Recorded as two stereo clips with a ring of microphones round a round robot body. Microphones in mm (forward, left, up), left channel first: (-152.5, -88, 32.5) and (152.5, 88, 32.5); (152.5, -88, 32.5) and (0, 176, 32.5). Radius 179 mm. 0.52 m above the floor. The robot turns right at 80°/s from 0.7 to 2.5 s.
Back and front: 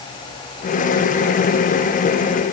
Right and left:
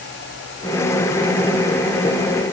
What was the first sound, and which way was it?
Only background noise.